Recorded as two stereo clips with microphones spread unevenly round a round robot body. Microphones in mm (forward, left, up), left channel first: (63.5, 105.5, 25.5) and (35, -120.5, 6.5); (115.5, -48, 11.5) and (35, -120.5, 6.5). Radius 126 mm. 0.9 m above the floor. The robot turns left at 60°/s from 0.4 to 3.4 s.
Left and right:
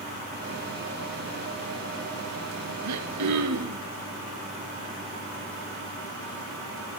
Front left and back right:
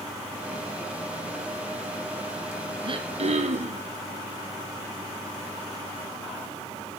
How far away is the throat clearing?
About 4 m.